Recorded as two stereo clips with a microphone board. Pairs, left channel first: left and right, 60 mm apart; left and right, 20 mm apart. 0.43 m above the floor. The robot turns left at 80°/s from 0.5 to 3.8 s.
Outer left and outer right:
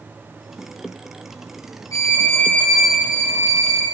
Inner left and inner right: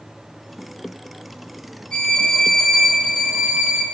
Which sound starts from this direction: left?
A violin, at 1.9 s.